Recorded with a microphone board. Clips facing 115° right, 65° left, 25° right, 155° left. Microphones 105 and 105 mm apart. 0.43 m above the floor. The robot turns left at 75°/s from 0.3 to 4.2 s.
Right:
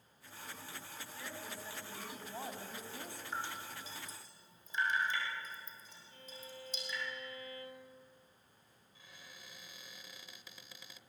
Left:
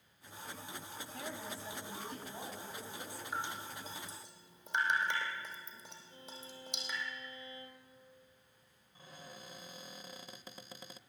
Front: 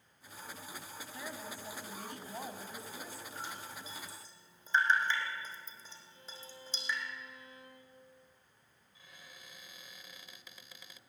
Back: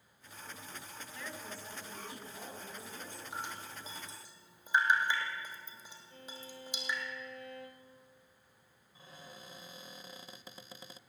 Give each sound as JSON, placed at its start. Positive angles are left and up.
{"t": 1.1, "sound": "a woman speaking", "azimuth_deg": 50, "distance_m": 3.5}
{"t": 3.3, "sound": "dripping", "azimuth_deg": 150, "distance_m": 3.5}
{"t": 6.1, "sound": "a violin", "azimuth_deg": 135, "distance_m": 3.0}
{"t": 8.9, "sound": "a cupboard door", "azimuth_deg": 110, "distance_m": 0.7}